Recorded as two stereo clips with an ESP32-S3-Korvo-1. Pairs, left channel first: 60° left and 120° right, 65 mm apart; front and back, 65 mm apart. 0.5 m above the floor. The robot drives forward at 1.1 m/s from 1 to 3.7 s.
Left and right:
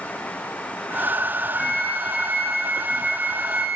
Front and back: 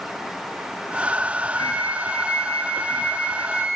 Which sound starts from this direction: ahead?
A flute, at 1.6 s.